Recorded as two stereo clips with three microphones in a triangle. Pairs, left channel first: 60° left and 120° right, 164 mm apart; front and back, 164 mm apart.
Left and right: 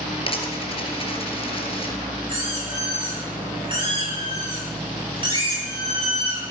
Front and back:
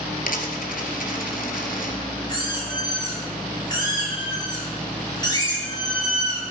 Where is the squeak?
65° right, 10 m.